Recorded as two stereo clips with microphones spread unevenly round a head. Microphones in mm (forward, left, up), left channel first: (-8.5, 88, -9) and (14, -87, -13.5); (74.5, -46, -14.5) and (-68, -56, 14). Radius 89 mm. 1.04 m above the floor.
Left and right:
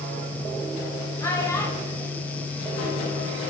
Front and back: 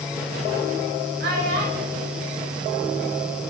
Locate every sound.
1.2 s a child speaking: 170° left, 3 m